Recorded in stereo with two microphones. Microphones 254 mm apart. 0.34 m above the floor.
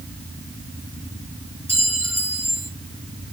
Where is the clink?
70° left (ahead or behind), 4.5 m.